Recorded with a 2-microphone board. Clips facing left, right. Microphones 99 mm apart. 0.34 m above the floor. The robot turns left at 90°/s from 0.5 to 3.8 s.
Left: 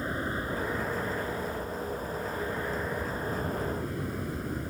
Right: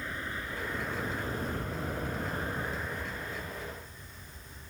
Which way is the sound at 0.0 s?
35° left.